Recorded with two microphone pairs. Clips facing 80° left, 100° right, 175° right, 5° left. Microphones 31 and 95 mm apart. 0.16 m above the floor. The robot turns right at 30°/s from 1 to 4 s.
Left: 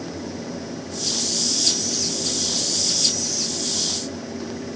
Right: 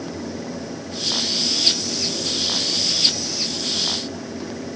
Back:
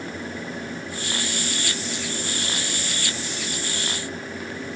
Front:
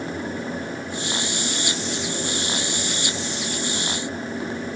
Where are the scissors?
I don't hear scissors.